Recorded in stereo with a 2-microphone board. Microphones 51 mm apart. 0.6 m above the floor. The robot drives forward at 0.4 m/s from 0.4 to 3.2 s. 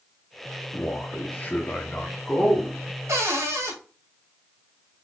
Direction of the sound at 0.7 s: 35° left (ahead or behind).